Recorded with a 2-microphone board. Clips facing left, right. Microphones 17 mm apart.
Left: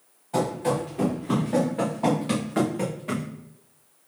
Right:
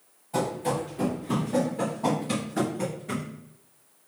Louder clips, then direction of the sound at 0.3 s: Left 3 dB; 20° left (ahead or behind).